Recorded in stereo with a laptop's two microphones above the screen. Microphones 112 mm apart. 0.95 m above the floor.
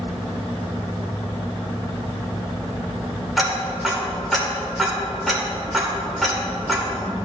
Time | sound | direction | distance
3.4 | ticking | centre (ahead or behind) | 2.5 m